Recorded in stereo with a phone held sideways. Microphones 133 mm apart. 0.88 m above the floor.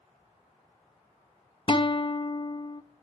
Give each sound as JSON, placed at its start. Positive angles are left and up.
{"t": 1.7, "sound": "a guitar", "side_deg": 40, "distance_m": 0.6}